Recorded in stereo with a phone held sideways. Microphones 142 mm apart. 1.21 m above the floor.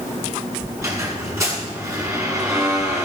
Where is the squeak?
20° right (ahead or behind), 5.5 m.